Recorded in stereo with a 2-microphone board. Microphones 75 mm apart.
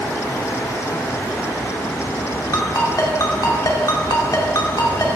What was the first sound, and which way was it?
A ringtone, 50° left (ahead or behind).